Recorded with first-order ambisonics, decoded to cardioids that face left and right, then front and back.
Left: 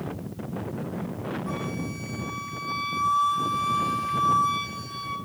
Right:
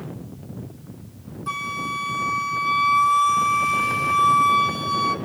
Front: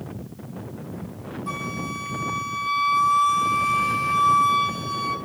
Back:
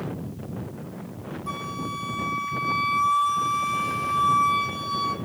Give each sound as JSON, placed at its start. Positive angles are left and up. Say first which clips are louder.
{"t": 1.5, "sound": "a flute", "louder": "right 7 dB, front 1 dB", "azimuth_deg": -85, "distance_m": 1.2}